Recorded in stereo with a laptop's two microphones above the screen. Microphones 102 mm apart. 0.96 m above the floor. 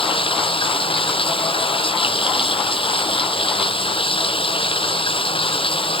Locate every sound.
0.0 s running water: 60° left (ahead or behind)